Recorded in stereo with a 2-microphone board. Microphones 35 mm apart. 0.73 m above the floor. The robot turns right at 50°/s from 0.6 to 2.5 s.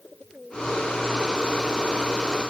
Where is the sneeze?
I don't hear a sneeze.